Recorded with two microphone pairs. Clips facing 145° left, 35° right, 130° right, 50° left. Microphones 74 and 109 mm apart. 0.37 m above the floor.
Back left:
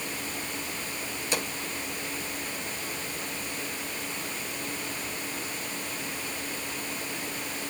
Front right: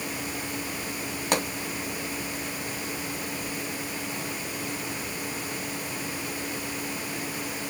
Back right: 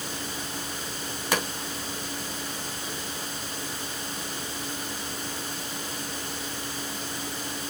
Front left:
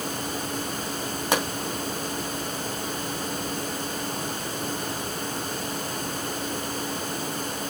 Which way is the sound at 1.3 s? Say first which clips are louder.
Front right 5 dB, front left 3 dB; 20° right.